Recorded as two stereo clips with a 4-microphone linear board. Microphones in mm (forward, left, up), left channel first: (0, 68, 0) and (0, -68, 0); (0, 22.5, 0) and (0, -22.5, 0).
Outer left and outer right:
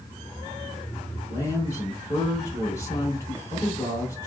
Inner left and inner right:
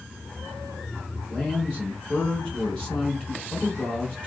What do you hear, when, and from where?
1.3 s a man speaking: 20° left (ahead or behind), 1.4 m